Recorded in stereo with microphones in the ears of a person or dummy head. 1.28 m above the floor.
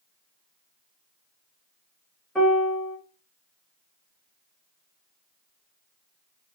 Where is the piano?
5° left (ahead or behind), 0.7 m.